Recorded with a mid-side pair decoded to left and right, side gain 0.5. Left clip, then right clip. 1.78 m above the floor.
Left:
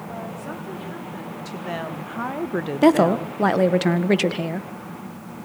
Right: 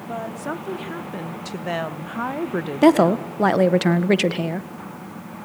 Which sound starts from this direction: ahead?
A woman speaking, at 2.8 s.